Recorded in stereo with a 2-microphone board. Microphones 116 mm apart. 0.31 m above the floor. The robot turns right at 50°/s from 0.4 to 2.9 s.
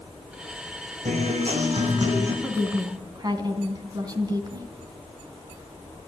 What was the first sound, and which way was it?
A guitar, 90° right.